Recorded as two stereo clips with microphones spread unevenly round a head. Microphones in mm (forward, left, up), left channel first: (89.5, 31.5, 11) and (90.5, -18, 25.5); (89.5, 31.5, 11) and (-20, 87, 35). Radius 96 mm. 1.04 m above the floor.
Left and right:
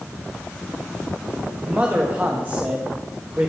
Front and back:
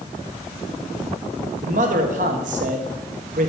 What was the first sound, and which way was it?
A man speaking, 165° right.